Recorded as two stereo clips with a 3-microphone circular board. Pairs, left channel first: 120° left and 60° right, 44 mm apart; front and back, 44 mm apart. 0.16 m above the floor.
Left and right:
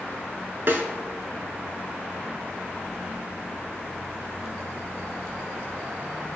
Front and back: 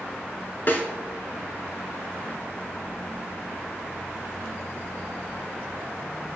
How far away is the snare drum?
About 0.6 m.